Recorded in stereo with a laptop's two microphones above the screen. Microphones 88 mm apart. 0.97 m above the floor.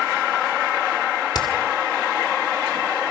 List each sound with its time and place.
1.3 s hammering: 55° left (ahead or behind), 2.5 m